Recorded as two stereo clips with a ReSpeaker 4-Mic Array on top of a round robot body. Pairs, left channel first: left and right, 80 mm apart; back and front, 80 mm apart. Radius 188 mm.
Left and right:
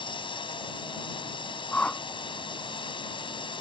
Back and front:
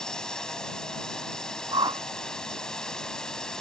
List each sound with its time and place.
0.0 s a drone: 100° left
1.7 s a whoosh: 20° left